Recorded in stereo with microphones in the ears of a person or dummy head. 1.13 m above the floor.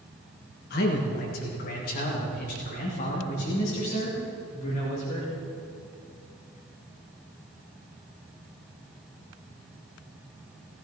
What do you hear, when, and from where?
0.7 s a man speaking: 55° left (ahead or behind), 1.4 m; by 5.3 s 45° left (ahead or behind), 3.5 m